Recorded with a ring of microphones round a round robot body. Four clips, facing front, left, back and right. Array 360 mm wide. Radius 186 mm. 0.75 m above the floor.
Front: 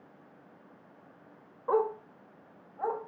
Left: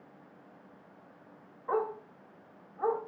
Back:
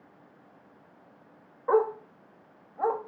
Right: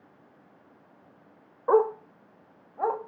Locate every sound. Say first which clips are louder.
1.7 s a dog barking: right 10 dB, back 4 dB; 100° right, 0.7 m; by 3.0 s 115° right, 1.4 m